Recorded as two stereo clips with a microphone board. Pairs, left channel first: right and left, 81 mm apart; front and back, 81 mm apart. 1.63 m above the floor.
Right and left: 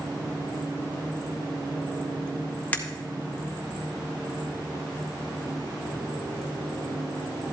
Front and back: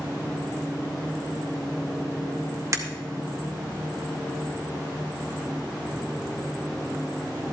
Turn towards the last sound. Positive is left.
turn(degrees=-150)